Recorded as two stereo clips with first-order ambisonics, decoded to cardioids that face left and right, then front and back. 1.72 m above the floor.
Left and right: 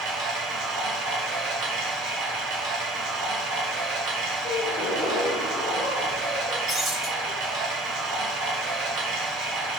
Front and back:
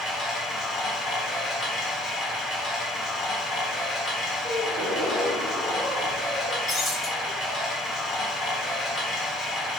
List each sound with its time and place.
0.0 s running water: 65° right, 0.8 m
4.4 s a gasp: 105° left, 0.8 m
6.7 s breaking glass: 25° right, 0.9 m